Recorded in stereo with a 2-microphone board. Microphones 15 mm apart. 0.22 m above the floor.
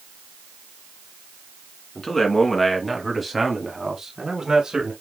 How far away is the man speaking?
About 2.5 m.